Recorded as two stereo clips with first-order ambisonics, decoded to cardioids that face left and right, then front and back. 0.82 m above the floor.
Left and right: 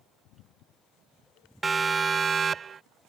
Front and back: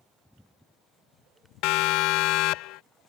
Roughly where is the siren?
Ahead.